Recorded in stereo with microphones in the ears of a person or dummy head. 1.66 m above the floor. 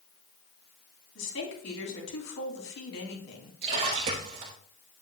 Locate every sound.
1.1 s a woman speaking: 85° left, 3 m
3.6 s a splash: 35° right (ahead or behind), 1.3 m